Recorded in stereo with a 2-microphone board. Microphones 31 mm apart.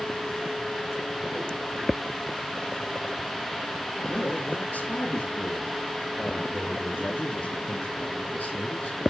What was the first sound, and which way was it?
A man speaking, 75° left (ahead or behind).